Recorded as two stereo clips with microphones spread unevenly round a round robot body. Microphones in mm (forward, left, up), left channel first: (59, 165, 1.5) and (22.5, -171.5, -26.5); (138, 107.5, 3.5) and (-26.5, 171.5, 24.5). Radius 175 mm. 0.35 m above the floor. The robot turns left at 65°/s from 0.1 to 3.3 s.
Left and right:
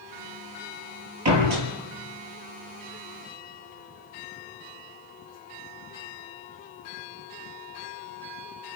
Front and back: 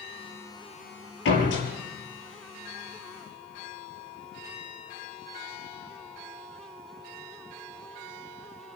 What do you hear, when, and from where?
1.2 s a door slam: 50° right, 6.5 m; by 1.7 s 80° right, 6.5 m